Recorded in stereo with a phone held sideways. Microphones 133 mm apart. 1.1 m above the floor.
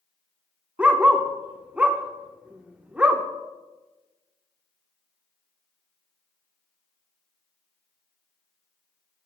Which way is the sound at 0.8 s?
10° right (ahead or behind).